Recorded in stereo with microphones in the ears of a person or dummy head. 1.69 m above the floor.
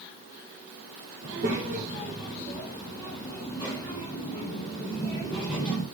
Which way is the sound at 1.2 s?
40° right (ahead or behind).